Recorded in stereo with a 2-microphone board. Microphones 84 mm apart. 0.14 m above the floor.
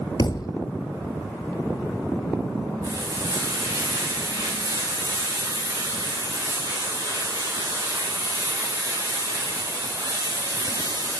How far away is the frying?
About 8 m.